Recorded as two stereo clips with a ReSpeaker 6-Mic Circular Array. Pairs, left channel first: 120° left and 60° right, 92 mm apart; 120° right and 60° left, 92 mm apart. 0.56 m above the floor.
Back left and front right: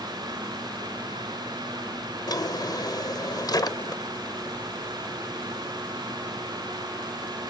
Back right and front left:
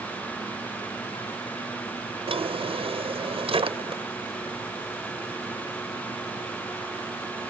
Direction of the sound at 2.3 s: 75° left.